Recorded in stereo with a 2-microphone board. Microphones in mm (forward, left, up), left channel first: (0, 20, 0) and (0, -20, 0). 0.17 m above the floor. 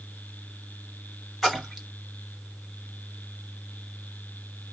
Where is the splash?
Centre (ahead or behind), 1.7 m.